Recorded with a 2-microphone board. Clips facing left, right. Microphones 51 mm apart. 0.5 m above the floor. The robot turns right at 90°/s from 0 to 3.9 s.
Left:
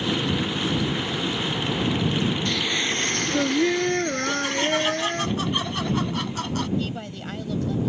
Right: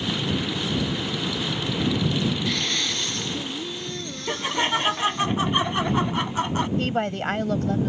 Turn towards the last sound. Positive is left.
turn(degrees=-55)  # may be behind; listen again after turning